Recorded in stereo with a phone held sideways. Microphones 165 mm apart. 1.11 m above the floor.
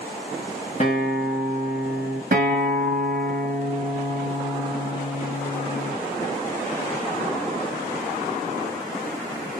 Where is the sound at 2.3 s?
60° right (ahead or behind), 0.9 m.